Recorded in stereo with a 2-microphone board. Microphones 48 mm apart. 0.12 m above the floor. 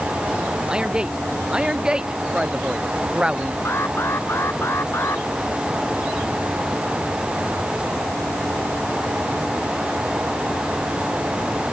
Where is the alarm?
55° left (ahead or behind).